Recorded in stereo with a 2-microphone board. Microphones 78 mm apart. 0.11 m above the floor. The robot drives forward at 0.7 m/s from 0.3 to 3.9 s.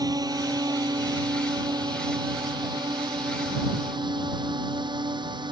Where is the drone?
55° right (ahead or behind); by 5.5 s 75° right (ahead or behind).